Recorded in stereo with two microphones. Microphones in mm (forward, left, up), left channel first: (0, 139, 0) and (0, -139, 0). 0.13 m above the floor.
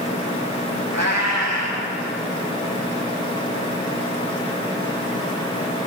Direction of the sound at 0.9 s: 70° right (ahead or behind).